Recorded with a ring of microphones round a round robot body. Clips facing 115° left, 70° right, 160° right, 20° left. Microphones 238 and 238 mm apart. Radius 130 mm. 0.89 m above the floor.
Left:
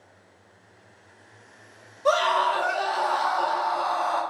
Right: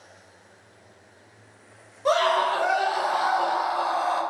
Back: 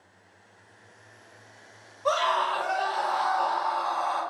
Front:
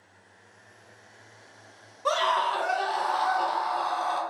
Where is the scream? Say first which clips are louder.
Right 1 dB, back 1 dB; 30° left, 1.0 m.